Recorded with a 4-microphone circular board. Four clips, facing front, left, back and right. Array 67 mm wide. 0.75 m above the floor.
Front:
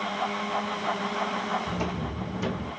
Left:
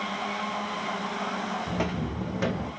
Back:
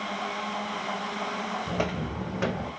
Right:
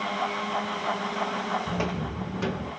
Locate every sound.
1.7 s footsteps: 175° left, 2 m; by 2.7 s 155° left, 2.5 m